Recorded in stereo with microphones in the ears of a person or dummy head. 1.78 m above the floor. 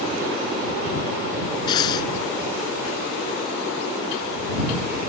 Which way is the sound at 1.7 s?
25° left (ahead or behind).